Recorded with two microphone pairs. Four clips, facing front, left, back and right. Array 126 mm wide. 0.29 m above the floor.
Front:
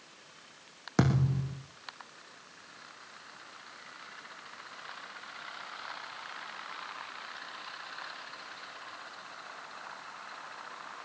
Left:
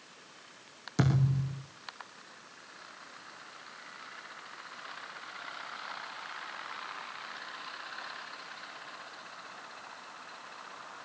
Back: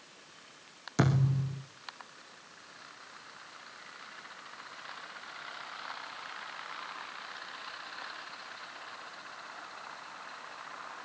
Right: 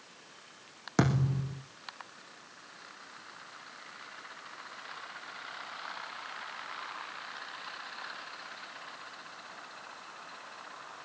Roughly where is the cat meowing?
I don't hear a cat meowing.